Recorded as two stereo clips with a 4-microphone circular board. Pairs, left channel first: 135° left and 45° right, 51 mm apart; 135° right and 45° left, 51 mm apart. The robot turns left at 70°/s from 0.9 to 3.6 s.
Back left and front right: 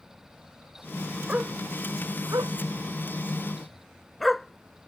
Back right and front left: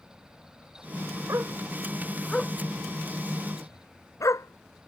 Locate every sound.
1.3 s a dog barking: 20° left; by 4.9 s 140° right